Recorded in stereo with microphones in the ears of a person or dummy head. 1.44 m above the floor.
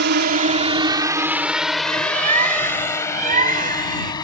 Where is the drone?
60° right (ahead or behind); by 4.2 s 25° left (ahead or behind).